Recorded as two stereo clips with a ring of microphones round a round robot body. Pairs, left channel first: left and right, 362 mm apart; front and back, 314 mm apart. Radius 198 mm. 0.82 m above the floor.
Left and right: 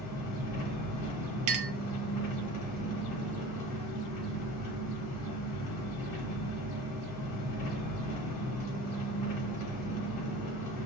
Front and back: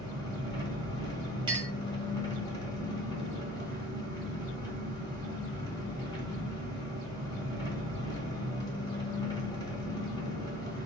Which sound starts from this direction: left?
An engine running, at 0.0 s.